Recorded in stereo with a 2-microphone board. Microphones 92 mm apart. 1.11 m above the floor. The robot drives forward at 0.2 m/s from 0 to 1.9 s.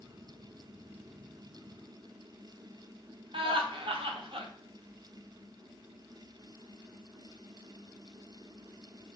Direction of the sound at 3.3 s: 75° right (ahead or behind).